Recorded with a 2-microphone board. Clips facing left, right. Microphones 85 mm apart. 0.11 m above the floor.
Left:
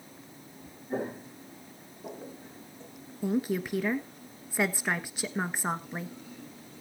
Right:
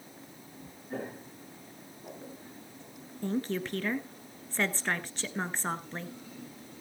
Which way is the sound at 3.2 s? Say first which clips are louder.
Left 3 dB; 10° left (ahead or behind).